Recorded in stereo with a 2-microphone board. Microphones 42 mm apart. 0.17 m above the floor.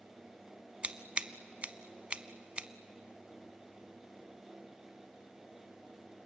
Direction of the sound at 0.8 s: 25° right (ahead or behind).